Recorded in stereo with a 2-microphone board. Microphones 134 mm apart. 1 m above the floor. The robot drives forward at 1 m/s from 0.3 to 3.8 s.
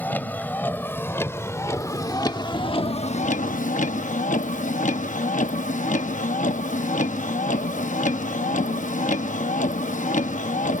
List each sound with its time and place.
0.0 s a vehicle: 15° left (ahead or behind); by 10.8 s 75° left (ahead or behind)